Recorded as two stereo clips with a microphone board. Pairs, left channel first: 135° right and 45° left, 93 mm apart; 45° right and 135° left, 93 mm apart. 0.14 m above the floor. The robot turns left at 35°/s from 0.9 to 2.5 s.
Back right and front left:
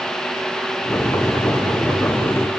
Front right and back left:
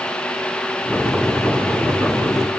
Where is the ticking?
I don't hear ticking.